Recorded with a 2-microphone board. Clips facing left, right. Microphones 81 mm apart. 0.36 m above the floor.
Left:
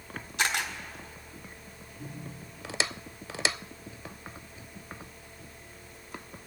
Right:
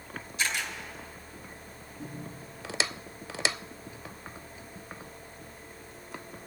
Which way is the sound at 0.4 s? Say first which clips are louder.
Left 3 dB; 65° left (ahead or behind).